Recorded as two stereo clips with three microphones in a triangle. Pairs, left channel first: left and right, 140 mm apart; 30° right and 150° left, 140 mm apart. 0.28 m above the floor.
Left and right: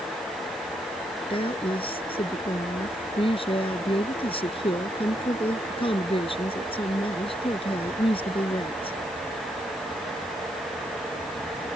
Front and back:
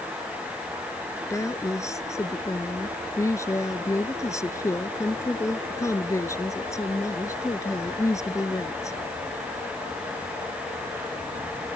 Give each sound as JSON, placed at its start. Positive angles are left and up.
{"t": 1.3, "sound": "a woman speaking", "azimuth_deg": 40}